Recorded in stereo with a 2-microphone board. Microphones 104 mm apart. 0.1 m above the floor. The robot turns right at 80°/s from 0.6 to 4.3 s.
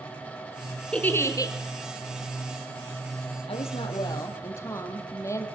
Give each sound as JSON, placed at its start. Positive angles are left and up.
{"t": 0.9, "sound": "a giggle", "azimuth_deg": 15, "distance_m": 2.0}
{"t": 3.5, "sound": "a woman speaking", "azimuth_deg": 85, "distance_m": 3.5}